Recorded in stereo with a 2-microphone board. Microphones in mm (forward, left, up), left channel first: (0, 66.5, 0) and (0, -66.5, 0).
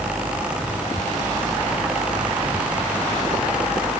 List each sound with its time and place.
Only background noise.